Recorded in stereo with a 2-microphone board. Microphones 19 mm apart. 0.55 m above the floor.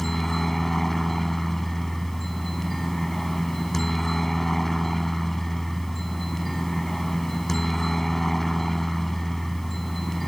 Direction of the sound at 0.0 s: 5° left (ahead or behind).